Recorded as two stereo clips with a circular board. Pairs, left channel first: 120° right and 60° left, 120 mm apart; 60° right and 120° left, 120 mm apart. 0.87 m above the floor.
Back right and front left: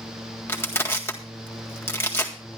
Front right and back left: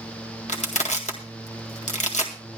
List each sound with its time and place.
0.5 s crushing: 50° right, 1.9 m